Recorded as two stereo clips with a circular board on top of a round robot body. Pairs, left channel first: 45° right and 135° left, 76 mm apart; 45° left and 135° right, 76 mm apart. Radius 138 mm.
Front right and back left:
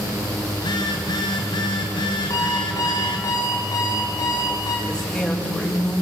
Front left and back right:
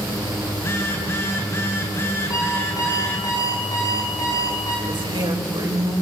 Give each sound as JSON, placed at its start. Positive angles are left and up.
{"t": 0.5, "sound": "a phone buzzing", "azimuth_deg": -15, "distance_m": 3.0}
{"t": 2.3, "sound": "an alarm clock", "azimuth_deg": 5, "distance_m": 7.0}
{"t": 4.9, "sound": "a woman speaking", "azimuth_deg": -125, "distance_m": 5.0}